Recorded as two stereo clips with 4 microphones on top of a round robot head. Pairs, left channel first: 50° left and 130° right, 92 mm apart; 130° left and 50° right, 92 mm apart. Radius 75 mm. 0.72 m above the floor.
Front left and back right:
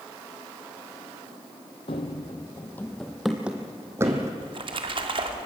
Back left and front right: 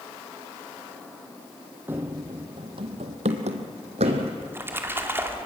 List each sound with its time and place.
1.9 s running footsteps: 20° left, 1.8 m; by 4.3 s 70° right, 2.5 m
4.4 s a splash: 115° right, 2.5 m